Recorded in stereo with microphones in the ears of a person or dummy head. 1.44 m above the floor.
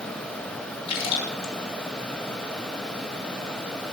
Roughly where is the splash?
Left.